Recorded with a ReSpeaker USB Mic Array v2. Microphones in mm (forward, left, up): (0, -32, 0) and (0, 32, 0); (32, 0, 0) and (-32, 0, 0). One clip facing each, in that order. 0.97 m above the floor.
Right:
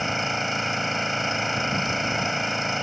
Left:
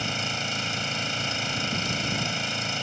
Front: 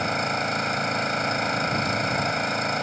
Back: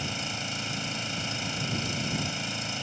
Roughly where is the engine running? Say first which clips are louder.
Right 5 dB, front 10 dB; ahead right.